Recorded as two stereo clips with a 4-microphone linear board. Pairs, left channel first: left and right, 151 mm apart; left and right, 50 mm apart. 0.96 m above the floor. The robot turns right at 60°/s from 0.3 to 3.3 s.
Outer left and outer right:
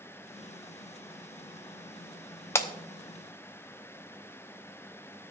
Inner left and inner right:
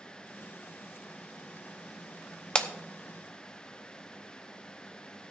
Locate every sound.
2.5 s breaking glass: 15° left (ahead or behind), 0.8 m; by 2.7 s 25° left (ahead or behind), 0.8 m